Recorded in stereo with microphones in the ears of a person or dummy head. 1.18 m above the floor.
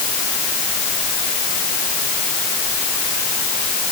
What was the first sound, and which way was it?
Only background noise.